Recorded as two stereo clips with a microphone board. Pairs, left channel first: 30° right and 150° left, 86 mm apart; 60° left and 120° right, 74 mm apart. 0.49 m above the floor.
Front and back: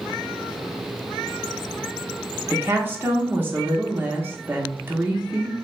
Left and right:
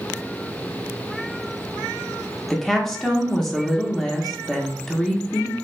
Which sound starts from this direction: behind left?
A woman speaking, at 2.5 s.